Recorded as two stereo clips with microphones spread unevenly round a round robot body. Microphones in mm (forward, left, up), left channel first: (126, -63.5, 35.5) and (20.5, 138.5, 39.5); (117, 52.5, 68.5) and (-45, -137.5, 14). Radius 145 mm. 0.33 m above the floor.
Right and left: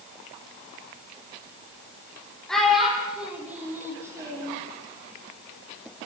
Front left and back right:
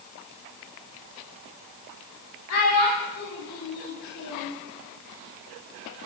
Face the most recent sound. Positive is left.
turn(degrees=45)